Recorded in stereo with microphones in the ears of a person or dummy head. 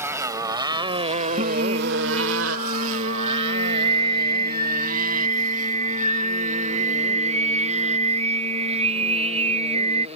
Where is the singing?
30° right (ahead or behind).